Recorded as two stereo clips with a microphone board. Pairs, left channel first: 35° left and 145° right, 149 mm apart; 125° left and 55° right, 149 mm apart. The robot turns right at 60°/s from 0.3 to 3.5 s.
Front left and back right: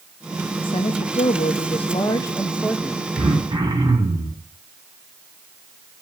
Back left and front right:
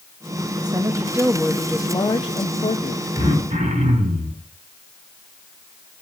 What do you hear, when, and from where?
0.6 s a woman speaking: 5° right, 0.6 m; by 3.0 s 140° left, 0.6 m
3.2 s throat clearing: 110° right, 3.5 m; by 4.4 s 90° right, 3.5 m